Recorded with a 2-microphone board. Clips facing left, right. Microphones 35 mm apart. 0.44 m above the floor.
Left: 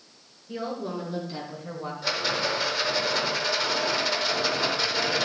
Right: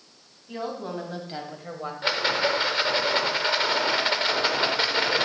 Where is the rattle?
40° right (ahead or behind), 1.0 m.